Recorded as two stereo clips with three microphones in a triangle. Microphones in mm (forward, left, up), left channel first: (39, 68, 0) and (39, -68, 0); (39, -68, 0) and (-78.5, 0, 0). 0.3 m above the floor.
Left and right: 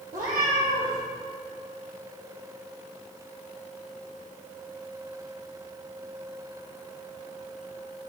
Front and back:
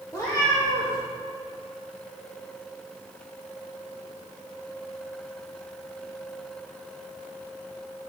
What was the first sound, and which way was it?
A cat meowing, 95° right.